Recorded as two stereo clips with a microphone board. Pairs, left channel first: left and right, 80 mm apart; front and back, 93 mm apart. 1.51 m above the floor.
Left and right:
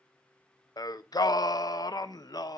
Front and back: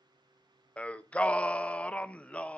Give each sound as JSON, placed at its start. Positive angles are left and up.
{"t": 0.8, "sound": "singing", "azimuth_deg": 75, "distance_m": 0.6}